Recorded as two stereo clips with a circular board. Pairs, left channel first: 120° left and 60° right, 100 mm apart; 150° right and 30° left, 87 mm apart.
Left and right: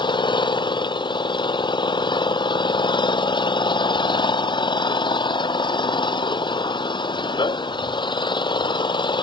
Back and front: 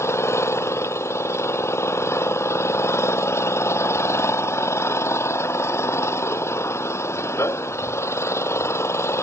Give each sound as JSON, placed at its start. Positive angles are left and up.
{"t": 0.0, "sound": "an engine running", "azimuth_deg": 155}